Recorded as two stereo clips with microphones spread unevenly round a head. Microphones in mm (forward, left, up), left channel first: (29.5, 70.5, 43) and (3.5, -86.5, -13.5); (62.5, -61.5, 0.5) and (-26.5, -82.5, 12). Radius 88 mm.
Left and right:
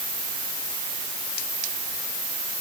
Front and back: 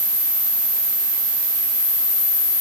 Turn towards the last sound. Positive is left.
No sound to turn to.